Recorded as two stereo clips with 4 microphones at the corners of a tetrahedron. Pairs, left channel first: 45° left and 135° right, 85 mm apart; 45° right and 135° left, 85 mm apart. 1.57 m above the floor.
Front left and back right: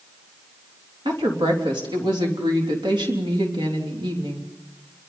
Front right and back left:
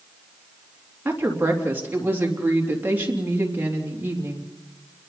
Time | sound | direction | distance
1.1 | a woman speaking | 160° right | 3 m